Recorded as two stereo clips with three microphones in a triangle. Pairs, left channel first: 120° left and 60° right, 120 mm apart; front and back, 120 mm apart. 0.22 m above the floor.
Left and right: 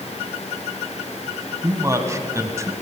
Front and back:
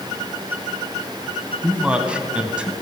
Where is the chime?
No chime in this recording.